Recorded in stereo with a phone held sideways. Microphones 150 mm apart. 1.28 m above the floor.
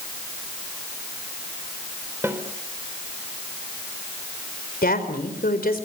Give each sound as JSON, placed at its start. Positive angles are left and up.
{"t": 2.2, "sound": "a snare drum", "side_deg": -15, "distance_m": 3.5}
{"t": 4.8, "sound": "a woman speaking", "side_deg": 90, "distance_m": 4.0}